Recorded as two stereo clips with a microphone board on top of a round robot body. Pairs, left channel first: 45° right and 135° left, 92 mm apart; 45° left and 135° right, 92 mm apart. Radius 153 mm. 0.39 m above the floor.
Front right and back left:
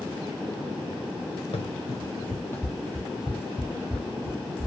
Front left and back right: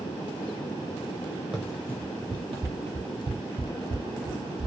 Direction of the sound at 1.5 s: 50° right.